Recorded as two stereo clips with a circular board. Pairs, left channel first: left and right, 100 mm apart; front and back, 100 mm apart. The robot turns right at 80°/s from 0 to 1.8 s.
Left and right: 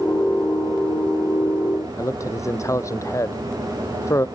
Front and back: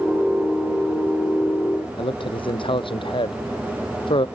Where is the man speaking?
30° left.